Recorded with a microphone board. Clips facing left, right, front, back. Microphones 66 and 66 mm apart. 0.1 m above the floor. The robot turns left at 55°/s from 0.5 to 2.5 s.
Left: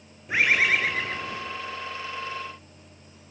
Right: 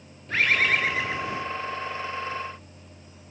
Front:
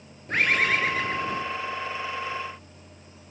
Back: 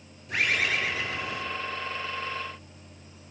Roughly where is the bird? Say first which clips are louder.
Left 1 dB, front 4 dB; ahead.